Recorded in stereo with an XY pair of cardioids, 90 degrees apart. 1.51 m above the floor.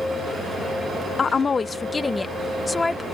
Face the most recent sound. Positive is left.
turn(degrees=25)